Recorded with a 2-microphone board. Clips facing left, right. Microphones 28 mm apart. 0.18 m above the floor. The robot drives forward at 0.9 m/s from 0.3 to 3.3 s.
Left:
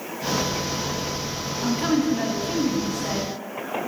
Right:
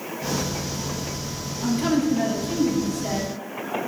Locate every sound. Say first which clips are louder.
1.6 s a woman speaking: right 1 dB; 15° left (ahead or behind), 1.4 m